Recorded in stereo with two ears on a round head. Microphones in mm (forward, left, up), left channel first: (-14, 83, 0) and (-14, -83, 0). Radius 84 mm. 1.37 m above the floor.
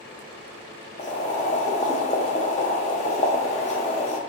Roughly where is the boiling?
Left.